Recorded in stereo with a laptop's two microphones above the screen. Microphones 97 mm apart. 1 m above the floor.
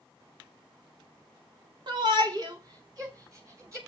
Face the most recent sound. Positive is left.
turn(degrees=-30)  # may be behind; listen again after turning